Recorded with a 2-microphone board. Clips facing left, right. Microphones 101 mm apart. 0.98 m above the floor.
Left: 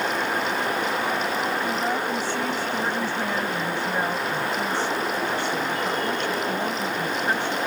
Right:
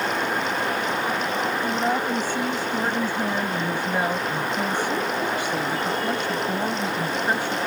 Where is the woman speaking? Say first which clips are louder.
Right 2 dB; 15° right (ahead or behind).